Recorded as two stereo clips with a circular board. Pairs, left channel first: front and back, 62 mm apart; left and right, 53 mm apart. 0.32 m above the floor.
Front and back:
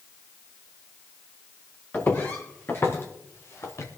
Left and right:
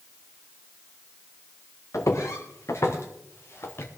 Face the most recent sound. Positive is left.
turn(degrees=45)